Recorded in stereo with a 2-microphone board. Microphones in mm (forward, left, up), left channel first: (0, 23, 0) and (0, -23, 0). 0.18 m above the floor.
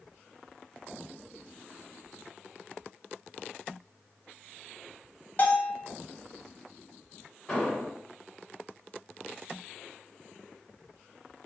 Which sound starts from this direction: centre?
An explosion, at 7.5 s.